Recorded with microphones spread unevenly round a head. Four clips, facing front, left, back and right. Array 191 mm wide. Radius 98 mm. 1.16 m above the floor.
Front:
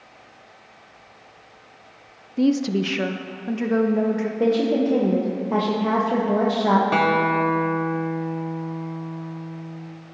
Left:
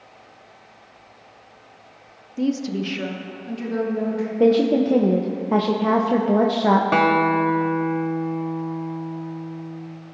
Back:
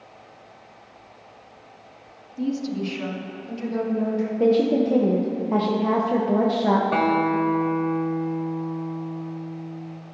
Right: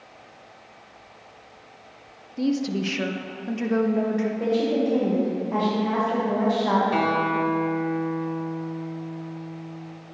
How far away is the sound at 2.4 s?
About 0.6 m.